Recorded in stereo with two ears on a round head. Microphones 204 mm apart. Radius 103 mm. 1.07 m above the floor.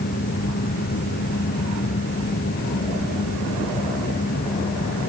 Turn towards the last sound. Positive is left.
No sound to turn to.